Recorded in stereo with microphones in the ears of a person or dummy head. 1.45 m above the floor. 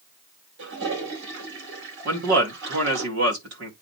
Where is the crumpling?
No crumpling in this recording.